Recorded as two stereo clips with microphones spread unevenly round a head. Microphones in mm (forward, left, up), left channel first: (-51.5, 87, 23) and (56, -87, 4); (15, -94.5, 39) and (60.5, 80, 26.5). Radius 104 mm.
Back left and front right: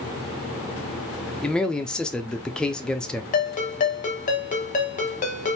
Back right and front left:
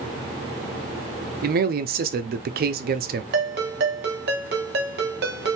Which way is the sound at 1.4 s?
40° left.